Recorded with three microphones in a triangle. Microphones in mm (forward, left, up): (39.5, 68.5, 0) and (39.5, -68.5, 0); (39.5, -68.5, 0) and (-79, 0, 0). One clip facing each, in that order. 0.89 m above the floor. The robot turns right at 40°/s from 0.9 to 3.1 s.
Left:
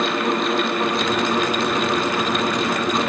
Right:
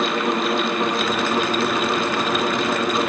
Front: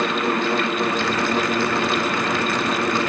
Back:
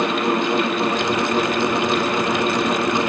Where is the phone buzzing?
I don't hear a phone buzzing.